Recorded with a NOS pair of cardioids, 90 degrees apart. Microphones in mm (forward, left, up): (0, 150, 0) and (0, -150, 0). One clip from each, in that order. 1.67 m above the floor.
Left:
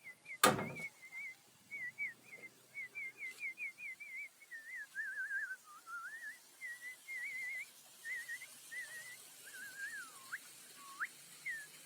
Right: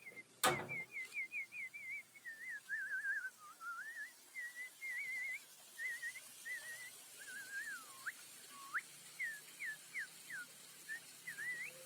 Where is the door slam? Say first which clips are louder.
Left 4 dB; 65° left, 2 m.